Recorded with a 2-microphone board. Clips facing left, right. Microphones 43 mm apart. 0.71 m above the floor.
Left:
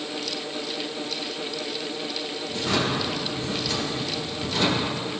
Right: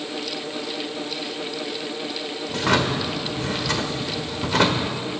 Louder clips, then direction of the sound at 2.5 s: Right 4 dB; 80° right.